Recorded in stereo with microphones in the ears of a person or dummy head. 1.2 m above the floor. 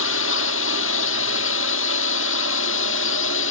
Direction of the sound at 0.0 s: 75° left (ahead or behind).